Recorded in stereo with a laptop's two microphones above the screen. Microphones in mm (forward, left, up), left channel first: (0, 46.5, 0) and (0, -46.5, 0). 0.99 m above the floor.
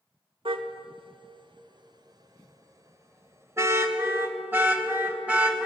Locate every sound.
0.5 s a car horn: 75° right (ahead or behind), 2 m; by 5.7 s 15° right (ahead or behind), 3.5 m